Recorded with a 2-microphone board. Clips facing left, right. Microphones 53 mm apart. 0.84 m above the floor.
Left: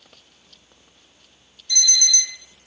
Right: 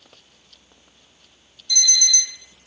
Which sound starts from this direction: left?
An alarm clock, at 1.7 s.